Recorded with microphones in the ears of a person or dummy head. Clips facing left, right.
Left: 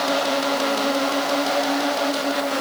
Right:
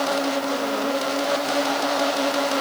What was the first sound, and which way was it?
Only background noise.